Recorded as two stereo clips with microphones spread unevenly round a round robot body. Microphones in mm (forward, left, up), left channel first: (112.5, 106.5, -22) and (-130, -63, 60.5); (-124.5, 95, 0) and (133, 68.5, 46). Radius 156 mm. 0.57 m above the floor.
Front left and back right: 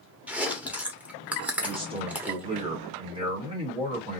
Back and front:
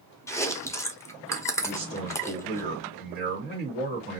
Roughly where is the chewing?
Left.